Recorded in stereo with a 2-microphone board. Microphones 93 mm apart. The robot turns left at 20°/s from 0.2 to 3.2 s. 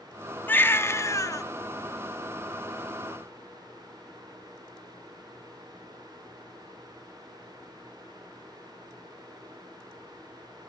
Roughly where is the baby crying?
Centre.